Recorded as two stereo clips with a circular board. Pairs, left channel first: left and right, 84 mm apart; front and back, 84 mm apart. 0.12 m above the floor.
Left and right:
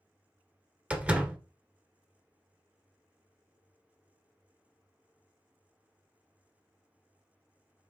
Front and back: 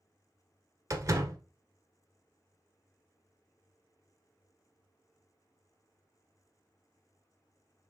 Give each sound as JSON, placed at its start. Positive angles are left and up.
{"t": 0.9, "sound": "a door slam", "azimuth_deg": -155, "distance_m": 1.1}